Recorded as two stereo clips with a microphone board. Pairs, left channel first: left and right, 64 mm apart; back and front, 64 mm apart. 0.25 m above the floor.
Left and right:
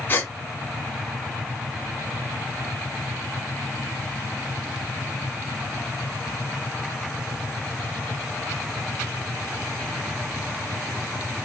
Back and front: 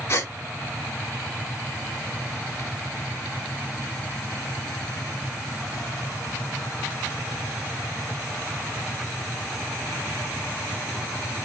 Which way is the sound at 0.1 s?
140° left.